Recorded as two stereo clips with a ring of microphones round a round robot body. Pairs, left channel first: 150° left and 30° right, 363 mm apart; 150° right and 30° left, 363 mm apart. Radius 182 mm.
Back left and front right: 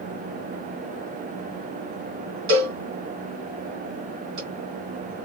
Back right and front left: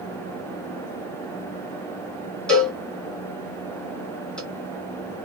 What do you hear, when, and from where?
2.5 s a cowbell: 60° right, 1.8 m